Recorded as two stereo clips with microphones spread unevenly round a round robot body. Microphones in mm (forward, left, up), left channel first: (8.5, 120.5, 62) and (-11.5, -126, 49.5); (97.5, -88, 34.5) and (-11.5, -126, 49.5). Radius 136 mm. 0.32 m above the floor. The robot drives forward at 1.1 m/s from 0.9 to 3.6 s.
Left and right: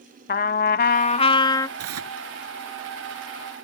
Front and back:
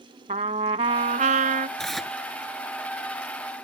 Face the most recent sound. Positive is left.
turn(degrees=-90)